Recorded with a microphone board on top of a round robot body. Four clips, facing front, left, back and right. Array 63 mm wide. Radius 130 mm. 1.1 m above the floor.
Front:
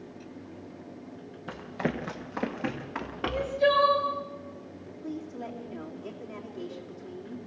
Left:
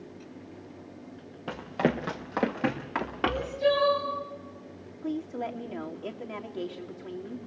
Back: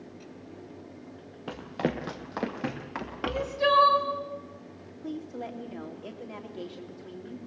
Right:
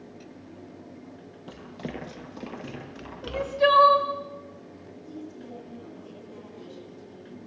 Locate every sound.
1.5 s running footsteps: 125° left, 1.4 m; by 3.6 s 100° left, 3.5 m
3.2 s crying: 110° right, 2 m
5.0 s a woman speaking: 100° left, 3 m